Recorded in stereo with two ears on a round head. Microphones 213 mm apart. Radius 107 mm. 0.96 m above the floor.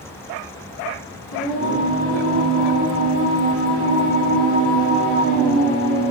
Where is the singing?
60° left (ahead or behind), 1.4 m.